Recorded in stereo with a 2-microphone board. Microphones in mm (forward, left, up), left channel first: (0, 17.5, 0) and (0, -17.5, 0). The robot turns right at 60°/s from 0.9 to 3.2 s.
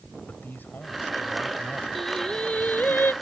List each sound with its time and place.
0.3 s a man speaking: 115° left; by 1.9 s 170° left
1.9 s singing: straight ahead; by 3.1 s 70° left